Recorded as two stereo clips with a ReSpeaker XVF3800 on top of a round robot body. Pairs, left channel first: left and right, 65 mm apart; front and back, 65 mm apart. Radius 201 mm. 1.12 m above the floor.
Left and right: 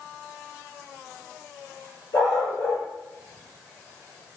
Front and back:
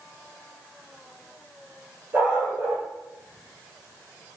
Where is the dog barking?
120° left, 8.5 m.